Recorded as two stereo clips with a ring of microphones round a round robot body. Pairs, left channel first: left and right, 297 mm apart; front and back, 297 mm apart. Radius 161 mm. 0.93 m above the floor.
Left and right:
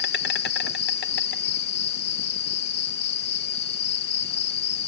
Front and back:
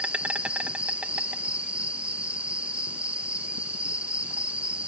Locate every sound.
0.0 s an insect: 95° left